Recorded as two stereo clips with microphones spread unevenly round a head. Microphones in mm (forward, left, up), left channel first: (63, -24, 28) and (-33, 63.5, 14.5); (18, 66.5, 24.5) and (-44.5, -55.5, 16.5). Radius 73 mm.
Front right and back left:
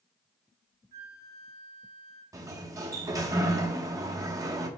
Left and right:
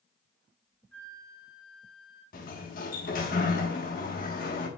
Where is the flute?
145° left, 2.5 m.